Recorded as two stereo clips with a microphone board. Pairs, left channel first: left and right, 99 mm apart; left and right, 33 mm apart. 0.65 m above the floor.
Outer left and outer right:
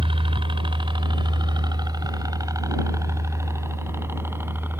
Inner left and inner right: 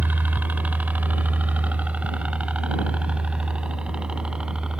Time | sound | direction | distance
0.0 | a helicopter | 60° right (ahead or behind) | ?